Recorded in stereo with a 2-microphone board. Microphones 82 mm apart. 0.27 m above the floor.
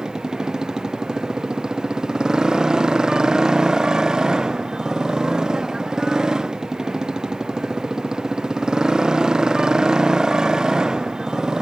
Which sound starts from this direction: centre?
A motorcycle, at 0.0 s.